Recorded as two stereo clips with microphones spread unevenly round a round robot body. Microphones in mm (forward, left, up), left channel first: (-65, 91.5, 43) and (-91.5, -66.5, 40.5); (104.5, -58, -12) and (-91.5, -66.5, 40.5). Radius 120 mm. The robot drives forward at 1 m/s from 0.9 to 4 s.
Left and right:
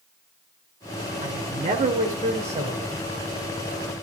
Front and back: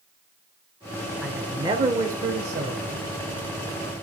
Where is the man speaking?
75° right, 1.5 m; by 3.0 s 150° right, 2 m.